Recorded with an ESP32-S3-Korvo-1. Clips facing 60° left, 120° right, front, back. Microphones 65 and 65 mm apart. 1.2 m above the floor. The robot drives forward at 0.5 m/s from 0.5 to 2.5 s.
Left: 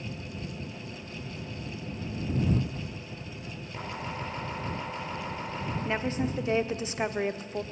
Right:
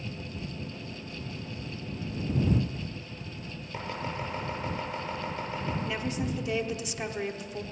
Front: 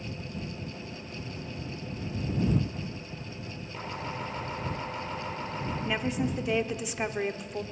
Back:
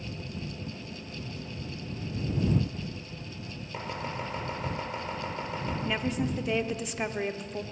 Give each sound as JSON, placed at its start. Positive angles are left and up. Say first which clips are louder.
{"t": 3.7, "sound": "chopping", "louder": "right 2 dB, back 1 dB", "azimuth_deg": 170, "distance_m": 5.5}
{"t": 5.8, "sound": "a woman speaking", "louder": "left 2 dB, front 1 dB", "azimuth_deg": 85, "distance_m": 0.5}